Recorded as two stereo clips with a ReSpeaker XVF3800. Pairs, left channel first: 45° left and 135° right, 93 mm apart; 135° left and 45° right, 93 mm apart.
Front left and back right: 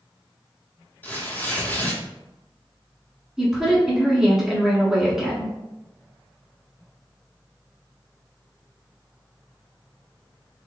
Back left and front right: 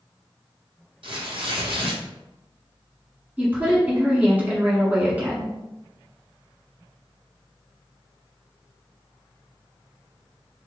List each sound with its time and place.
1.0 s tearing paper: 25° right, 0.8 m
3.4 s a woman speaking: 60° right, 1.5 m